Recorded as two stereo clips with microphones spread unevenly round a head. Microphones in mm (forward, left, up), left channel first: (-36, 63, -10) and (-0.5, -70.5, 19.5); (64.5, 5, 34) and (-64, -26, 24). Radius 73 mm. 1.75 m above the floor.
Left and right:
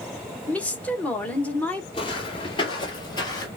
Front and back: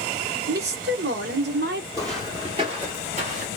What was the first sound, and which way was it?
A woman speaking, 170° right.